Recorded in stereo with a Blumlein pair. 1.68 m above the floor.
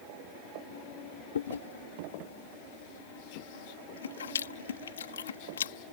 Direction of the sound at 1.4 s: 65° left.